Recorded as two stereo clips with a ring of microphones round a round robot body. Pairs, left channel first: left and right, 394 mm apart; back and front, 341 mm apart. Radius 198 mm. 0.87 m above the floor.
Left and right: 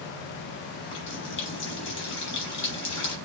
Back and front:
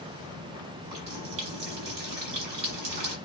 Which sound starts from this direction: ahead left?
A running tap, at 0.8 s.